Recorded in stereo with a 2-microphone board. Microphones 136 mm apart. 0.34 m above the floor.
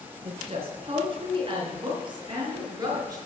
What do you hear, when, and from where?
0.2 s a woman speaking: 50° right (ahead or behind), 3.5 m; by 3.2 s 25° right (ahead or behind), 4 m